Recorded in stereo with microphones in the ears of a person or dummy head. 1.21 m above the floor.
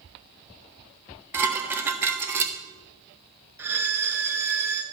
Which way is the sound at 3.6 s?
10° right (ahead or behind).